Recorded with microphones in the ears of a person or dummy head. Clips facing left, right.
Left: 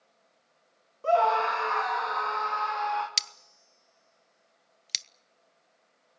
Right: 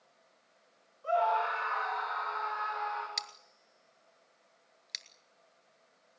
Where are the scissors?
35° left (ahead or behind), 0.8 m.